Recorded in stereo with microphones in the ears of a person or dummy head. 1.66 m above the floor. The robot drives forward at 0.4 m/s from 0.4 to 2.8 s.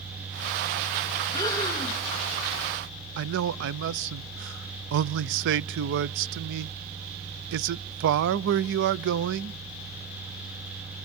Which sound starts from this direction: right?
A man speaking, at 3.2 s.